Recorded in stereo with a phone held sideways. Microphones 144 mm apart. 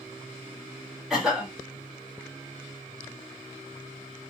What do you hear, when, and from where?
1.1 s a cough: 5° right (ahead or behind), 1.3 m